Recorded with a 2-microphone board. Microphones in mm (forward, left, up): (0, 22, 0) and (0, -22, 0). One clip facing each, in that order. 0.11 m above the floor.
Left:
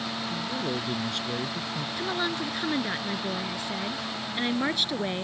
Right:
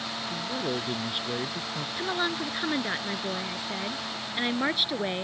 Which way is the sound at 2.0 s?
10° right (ahead or behind).